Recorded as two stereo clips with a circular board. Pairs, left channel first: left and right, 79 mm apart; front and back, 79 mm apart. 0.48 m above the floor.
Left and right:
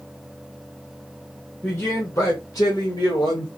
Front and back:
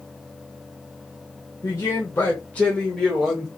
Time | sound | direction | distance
1.6 | a man speaking | 35° left | 1.4 m